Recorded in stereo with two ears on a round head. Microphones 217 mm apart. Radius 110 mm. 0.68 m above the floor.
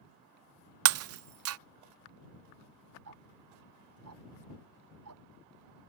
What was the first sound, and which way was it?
Breaking glass, 60° right (ahead or behind).